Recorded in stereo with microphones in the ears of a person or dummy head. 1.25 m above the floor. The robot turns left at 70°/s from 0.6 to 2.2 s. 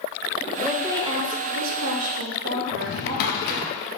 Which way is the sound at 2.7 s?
55° left (ahead or behind).